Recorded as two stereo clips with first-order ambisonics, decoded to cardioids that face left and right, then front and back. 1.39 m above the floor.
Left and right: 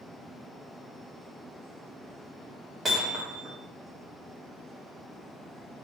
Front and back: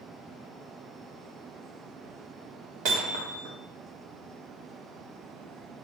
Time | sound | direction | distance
2.9 | hammering | 165° right | 2 m